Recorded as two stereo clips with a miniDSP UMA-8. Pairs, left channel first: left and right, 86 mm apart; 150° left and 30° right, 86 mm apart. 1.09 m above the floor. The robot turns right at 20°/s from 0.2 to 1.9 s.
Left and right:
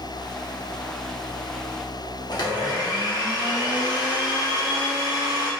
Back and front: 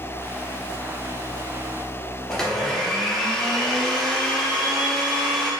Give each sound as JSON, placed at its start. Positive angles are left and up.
{"t": 2.3, "sound": "a blender", "azimuth_deg": 65, "distance_m": 0.6}